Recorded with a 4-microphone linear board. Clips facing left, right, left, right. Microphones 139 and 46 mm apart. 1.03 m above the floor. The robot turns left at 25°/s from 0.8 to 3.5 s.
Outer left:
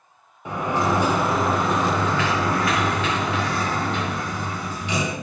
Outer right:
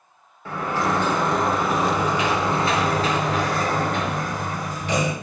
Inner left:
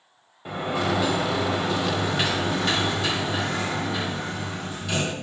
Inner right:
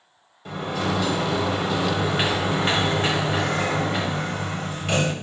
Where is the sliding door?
20° left, 1.7 m; by 5.1 s 50° right, 1.7 m.